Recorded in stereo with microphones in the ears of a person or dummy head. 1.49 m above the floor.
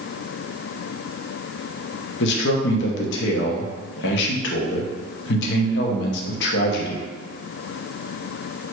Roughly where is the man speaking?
Left.